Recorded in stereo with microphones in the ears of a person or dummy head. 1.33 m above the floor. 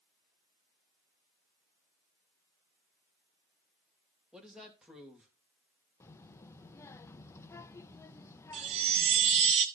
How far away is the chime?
About 0.9 m.